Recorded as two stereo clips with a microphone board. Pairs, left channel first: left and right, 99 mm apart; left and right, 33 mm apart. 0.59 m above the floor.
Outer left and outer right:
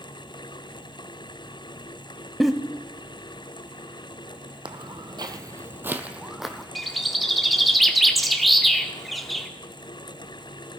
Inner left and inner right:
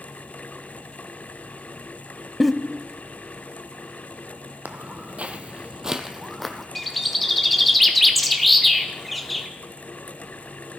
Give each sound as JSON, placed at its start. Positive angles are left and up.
{"t": 2.4, "sound": "a giggle", "side_deg": 0, "distance_m": 0.5}
{"t": 4.7, "sound": "footsteps", "side_deg": -55, "distance_m": 1.0}
{"t": 6.8, "sound": "a bird", "side_deg": 0, "distance_m": 0.9}